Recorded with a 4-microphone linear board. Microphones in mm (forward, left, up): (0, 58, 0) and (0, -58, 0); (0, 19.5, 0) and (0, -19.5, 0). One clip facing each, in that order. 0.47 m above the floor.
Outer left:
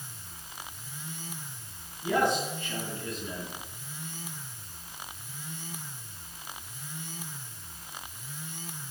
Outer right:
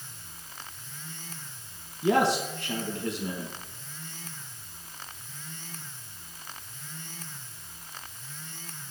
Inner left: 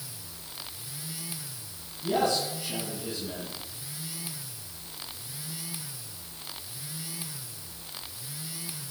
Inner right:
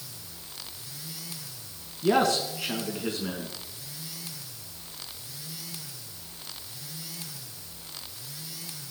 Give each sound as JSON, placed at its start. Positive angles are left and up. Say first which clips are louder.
{"t": 2.0, "sound": "a man speaking", "louder": "outer right 3 dB, inner right 3 dB", "side_deg": -80, "distance_m": 4.0}